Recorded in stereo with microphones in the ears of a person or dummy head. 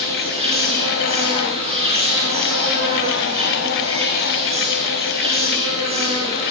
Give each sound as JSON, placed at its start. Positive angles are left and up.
{"t": 0.0, "sound": "an insect", "side_deg": -35, "distance_m": 7.5}